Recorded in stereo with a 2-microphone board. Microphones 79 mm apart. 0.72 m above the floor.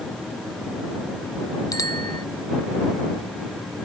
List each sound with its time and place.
1.7 s a bicycle bell: 50° left (ahead or behind)